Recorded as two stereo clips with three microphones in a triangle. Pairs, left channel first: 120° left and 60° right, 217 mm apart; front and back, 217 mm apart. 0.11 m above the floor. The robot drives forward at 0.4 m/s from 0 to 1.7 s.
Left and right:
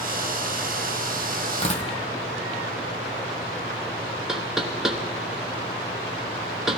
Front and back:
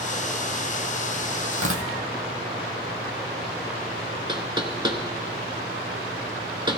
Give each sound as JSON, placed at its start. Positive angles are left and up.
{"t": 1.5, "sound": "tearing paper", "azimuth_deg": 180, "distance_m": 1.5}
{"t": 4.3, "sound": "knocking", "azimuth_deg": -145, "distance_m": 1.0}